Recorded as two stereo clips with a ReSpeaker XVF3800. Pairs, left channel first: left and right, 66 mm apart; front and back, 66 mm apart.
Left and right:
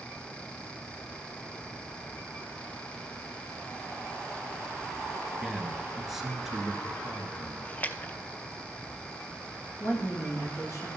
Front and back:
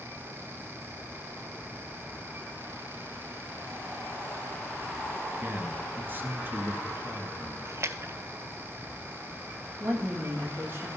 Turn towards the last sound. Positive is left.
turn(degrees=130)